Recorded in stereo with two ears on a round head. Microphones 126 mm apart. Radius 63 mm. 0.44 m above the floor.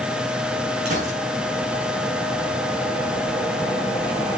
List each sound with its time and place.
0.8 s a gunshot: 55° right (ahead or behind), 5.5 m